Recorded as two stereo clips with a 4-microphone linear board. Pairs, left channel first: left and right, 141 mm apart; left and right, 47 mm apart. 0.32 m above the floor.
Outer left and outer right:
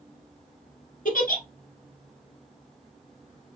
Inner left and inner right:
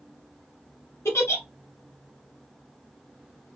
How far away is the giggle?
About 1.3 m.